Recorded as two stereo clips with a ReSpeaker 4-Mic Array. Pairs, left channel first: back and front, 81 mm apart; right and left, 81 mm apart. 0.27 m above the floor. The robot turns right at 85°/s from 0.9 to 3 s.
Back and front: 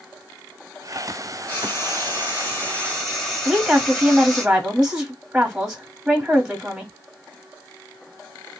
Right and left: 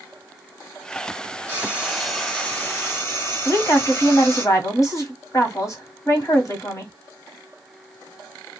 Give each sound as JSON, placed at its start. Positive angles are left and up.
{"t": 1.5, "sound": "frying", "azimuth_deg": 130, "distance_m": 1.5}
{"t": 3.5, "sound": "a woman speaking", "azimuth_deg": -75, "distance_m": 1.2}